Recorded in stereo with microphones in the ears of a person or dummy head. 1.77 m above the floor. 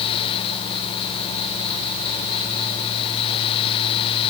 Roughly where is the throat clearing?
No throat clearing in this recording.